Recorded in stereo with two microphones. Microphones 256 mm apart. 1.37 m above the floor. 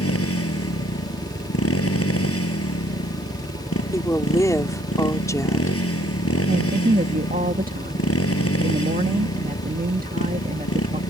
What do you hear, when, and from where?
0.0 s a motorcycle: 70° left (ahead or behind)
3.9 s a woman speaking: 15° left (ahead or behind)
6.5 s a woman speaking: 35° right (ahead or behind)